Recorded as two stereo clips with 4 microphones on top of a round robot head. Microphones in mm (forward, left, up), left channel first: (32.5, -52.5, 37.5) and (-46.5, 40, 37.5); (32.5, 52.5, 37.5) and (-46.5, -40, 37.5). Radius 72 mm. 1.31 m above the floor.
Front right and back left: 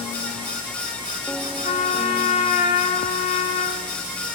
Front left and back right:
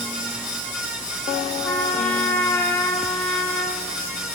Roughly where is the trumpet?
Ahead.